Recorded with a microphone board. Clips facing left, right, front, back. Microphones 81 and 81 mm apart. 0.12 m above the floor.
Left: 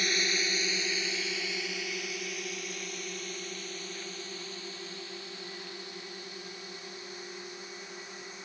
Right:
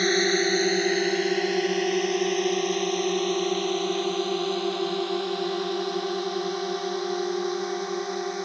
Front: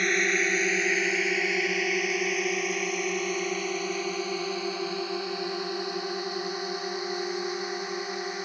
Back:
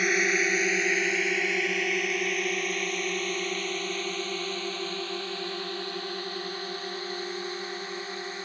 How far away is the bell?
No bell in this recording.